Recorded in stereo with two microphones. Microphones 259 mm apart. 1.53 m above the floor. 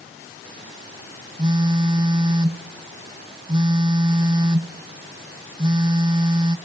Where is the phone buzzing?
20° right (ahead or behind), 0.5 m.